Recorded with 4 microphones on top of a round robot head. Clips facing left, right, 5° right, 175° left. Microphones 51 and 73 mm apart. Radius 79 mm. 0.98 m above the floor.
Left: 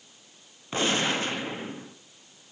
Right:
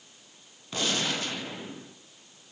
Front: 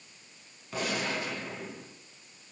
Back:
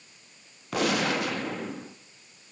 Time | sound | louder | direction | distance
0.7 | a gunshot | left 4 dB, back 7 dB | 150° left | 1.2 m